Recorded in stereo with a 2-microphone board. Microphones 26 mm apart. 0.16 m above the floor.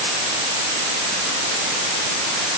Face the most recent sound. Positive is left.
No sound to turn to.